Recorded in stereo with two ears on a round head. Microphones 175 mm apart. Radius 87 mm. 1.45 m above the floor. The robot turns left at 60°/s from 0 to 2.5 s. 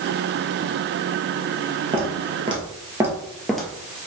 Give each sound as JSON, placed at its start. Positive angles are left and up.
{"t": 1.9, "sound": "footsteps", "side_deg": -30, "distance_m": 1.7}